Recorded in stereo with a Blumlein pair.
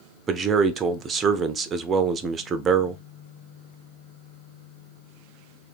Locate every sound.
0.3 s a man speaking: 20° right, 0.5 m